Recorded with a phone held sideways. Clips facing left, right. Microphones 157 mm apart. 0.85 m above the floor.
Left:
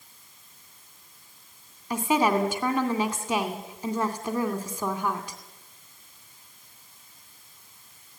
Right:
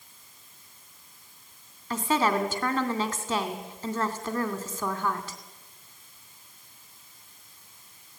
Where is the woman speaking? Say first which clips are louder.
Left 2 dB; 15° left (ahead or behind), 2.5 m.